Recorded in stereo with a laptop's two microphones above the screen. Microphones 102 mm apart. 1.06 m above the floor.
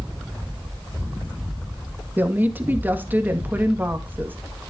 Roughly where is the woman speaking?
Centre.